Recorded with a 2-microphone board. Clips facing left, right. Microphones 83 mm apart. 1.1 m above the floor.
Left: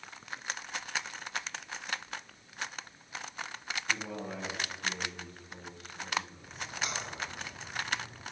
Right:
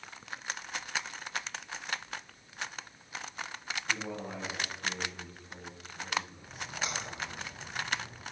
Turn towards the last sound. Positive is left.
turn(degrees=-35)  # may be behind; listen again after turning